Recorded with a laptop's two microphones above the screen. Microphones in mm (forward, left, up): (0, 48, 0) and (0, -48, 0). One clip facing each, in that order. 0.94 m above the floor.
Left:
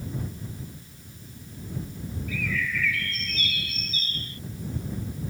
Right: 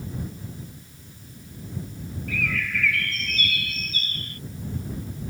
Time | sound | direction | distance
2.3 | a bird | 85° right | ?